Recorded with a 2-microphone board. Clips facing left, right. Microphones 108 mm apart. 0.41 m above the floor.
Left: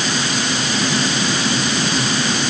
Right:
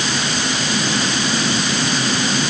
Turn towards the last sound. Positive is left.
No sound to turn to.